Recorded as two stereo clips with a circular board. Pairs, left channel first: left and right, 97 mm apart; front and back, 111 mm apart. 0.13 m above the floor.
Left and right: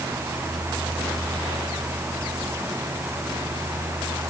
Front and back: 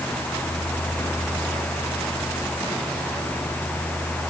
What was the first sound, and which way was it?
Only background noise.